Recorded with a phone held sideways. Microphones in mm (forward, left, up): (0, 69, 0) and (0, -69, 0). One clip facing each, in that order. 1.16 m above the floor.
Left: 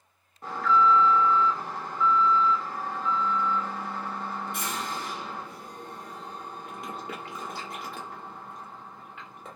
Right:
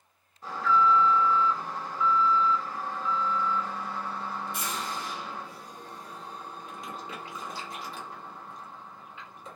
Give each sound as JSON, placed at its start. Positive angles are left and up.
{"t": 0.4, "sound": "an alarm", "side_deg": 60, "distance_m": 1.2}